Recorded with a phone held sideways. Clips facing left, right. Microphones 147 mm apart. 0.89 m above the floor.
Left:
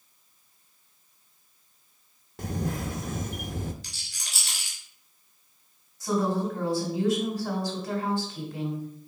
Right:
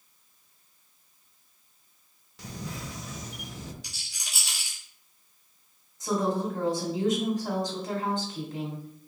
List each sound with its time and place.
2.4 s a camera shutter: 55° left (ahead or behind), 0.6 m
3.8 s a rattle: 15° right (ahead or behind), 3.5 m
6.0 s a woman speaking: 20° right (ahead or behind), 3 m